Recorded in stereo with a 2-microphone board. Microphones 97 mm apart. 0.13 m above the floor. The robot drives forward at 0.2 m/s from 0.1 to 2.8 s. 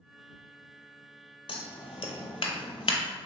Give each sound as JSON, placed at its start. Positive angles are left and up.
{"t": 1.5, "sound": "scissors", "side_deg": 65, "distance_m": 0.7}